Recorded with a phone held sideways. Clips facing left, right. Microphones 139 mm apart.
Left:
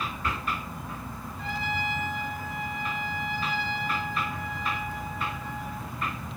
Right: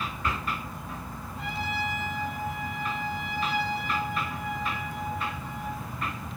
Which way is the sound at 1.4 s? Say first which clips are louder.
Even; 70° right (ahead or behind).